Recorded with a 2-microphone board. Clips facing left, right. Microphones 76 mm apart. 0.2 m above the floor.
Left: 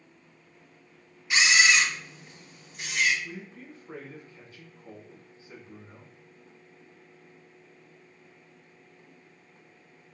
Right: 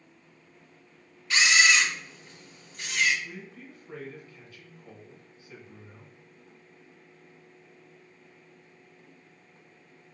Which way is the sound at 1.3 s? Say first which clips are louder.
Even; 15° left (ahead or behind).